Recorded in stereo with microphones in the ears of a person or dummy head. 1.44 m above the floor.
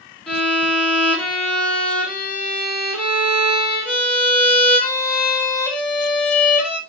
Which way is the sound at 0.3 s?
5° left (ahead or behind).